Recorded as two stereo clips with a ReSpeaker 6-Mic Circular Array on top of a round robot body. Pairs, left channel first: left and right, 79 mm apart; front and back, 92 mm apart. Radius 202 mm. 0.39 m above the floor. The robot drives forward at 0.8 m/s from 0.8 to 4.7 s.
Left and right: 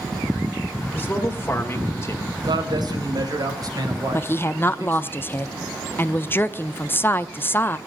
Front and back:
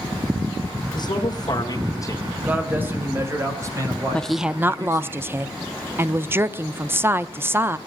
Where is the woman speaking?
70° left, 0.8 m; by 7.8 s 135° left, 0.9 m.